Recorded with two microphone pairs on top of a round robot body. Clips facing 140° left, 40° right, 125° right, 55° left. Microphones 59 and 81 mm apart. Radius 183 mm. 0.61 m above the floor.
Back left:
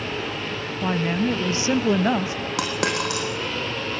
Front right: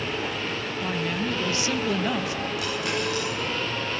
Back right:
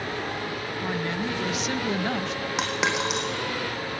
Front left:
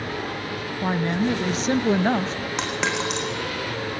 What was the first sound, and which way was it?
A woman speaking, 85° left.